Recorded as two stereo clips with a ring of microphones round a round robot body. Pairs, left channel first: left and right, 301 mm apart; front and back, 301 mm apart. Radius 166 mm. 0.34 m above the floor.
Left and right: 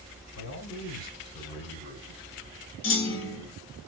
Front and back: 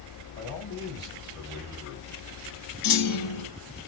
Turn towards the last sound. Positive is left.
turn(degrees=35)